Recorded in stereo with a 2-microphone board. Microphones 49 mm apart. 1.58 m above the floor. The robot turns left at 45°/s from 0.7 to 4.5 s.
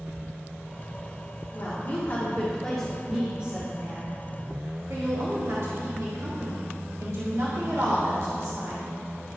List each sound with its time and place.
1.5 s a woman speaking: 65° left, 1.7 m; by 8.9 s 70° right, 1.7 m